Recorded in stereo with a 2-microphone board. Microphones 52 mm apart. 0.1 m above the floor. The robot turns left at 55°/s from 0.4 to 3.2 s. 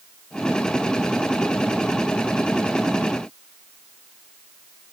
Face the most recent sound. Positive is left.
No sound to turn to.